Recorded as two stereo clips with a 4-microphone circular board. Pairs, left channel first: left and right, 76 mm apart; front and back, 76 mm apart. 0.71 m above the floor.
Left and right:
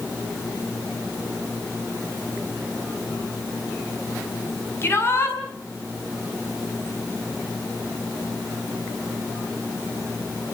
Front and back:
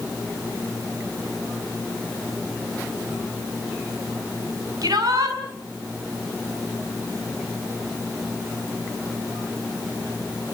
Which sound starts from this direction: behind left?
A shout, at 4.8 s.